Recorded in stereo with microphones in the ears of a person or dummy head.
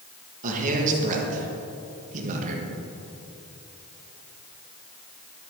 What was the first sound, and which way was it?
A man speaking, 45° right (ahead or behind).